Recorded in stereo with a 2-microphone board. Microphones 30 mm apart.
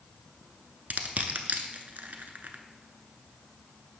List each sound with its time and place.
0.9 s crushing: 80° right, 0.6 m